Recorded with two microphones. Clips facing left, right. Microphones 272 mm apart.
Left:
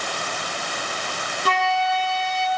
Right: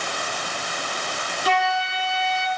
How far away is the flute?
About 5 m.